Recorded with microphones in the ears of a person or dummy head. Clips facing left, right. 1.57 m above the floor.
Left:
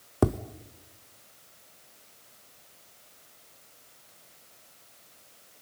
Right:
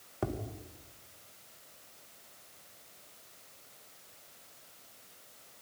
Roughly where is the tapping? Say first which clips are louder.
Left 10 dB; left.